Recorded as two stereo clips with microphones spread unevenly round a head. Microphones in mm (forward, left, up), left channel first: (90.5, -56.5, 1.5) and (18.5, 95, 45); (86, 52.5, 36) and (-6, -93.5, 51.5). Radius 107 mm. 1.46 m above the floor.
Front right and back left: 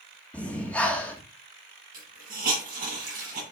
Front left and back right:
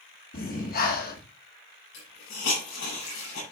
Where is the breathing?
25° left, 1.8 m.